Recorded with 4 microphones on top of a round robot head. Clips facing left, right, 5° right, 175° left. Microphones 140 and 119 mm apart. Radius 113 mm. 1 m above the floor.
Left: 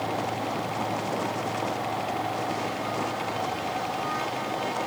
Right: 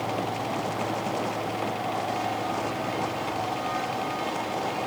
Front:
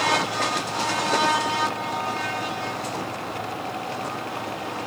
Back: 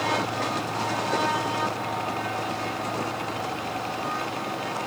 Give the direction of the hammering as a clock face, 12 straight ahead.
No hammering in this recording.